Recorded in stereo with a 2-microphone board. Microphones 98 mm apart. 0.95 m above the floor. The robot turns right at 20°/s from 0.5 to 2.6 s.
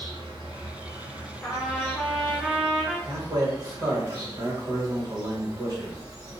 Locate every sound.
0.0 s an insect: 85° right, 1.2 m; by 6.4 s 45° right, 1.2 m
1.4 s a trumpet: 20° left (ahead or behind), 0.6 m; by 3.0 s 5° right (ahead or behind), 0.6 m
3.1 s a man speaking: 40° right (ahead or behind), 1.0 m